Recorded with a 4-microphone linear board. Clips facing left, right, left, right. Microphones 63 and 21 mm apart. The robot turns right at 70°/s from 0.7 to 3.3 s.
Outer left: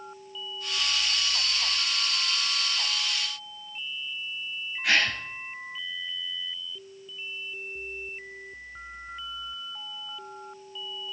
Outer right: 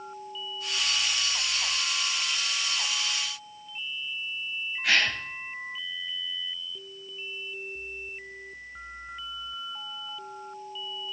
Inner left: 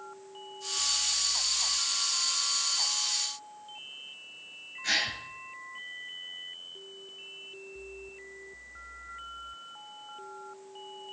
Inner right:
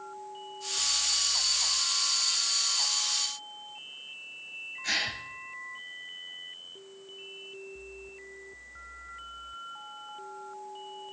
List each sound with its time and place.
4.8 s a gasp: centre (ahead or behind), 2.5 m